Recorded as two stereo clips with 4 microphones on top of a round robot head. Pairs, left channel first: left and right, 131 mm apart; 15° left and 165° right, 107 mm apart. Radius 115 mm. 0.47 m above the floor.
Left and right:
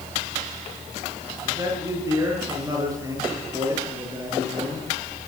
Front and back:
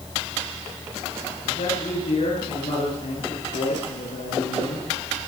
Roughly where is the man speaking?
Ahead right.